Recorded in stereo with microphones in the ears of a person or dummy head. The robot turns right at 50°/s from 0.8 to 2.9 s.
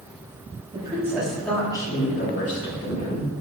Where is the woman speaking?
25° right, 4 m; by 3.4 s 80° left, 4 m.